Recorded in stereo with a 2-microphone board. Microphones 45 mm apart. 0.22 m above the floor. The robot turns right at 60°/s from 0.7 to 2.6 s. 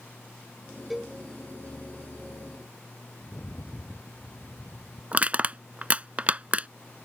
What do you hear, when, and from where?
0.9 s a cowbell: centre (ahead or behind); by 1.2 s 15° right (ahead or behind)
3.2 s a rattle: 45° left (ahead or behind)
5.1 s crushing: 30° right (ahead or behind)